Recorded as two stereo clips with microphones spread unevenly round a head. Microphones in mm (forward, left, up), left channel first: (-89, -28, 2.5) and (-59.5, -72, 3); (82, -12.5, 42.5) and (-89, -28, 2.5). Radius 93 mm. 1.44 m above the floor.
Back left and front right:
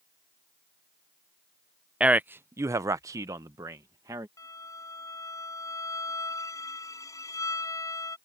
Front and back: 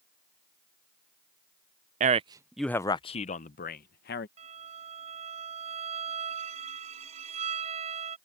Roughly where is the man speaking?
Behind right.